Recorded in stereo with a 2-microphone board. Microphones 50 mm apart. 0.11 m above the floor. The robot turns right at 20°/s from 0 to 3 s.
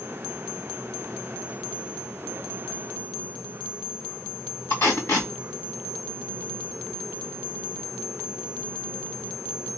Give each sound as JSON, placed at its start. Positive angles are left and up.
{"t": 4.7, "sound": "tape being pulled", "side_deg": 60, "distance_m": 2.5}